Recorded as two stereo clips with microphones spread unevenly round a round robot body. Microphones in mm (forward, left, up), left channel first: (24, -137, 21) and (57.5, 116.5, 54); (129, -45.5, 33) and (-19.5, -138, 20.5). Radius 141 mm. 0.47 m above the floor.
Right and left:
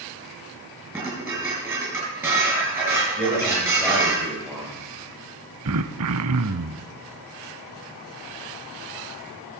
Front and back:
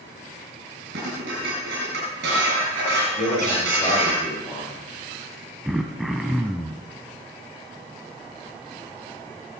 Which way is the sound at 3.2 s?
15° right.